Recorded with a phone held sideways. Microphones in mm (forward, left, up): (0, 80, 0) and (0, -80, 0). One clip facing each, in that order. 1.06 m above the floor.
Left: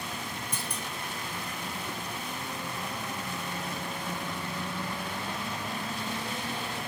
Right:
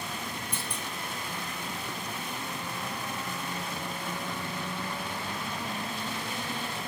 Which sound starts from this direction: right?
A clunk, at 0.5 s.